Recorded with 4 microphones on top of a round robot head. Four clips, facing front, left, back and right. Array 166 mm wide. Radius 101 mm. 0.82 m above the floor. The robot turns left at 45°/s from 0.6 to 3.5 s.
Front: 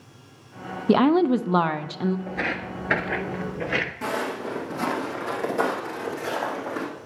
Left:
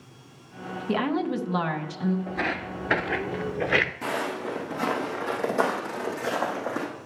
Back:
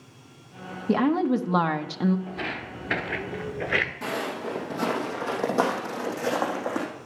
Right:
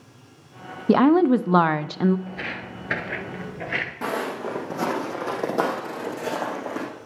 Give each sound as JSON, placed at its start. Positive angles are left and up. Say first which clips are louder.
{"t": 0.9, "sound": "a woman speaking", "louder": "right 10 dB, front 4 dB", "azimuth_deg": -55, "distance_m": 0.6}
{"t": 2.3, "sound": "footsteps", "louder": "left 4 dB, front 4 dB", "azimuth_deg": 45, "distance_m": 1.0}
{"t": 4.0, "sound": "footsteps", "louder": "right 2 dB, front 2 dB", "azimuth_deg": -105, "distance_m": 2.5}